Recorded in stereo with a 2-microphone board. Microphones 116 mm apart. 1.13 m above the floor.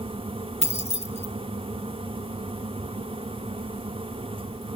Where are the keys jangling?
70° left (ahead or behind), 1.9 m.